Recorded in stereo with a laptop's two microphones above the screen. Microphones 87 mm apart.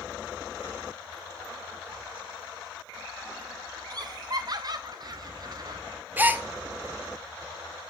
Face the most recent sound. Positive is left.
turn(degrees=-20)  # may be behind; listen again after turning